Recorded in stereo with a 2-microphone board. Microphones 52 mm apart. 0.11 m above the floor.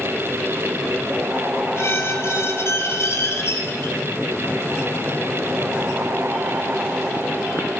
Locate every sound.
1.8 s a squeak: 55° left (ahead or behind), 1.7 m